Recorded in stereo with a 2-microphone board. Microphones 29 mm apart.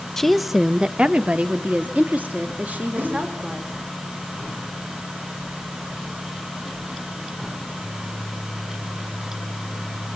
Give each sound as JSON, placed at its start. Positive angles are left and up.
{"t": 0.2, "sound": "a woman speaking", "side_deg": 15, "distance_m": 0.9}
{"t": 3.0, "sound": "a whoosh", "side_deg": -65, "distance_m": 3.5}